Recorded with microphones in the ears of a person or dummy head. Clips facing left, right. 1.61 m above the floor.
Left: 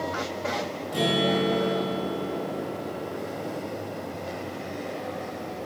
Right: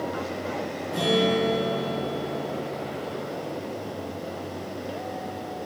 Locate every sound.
0.9 s a guitar: 35° left (ahead or behind), 1.5 m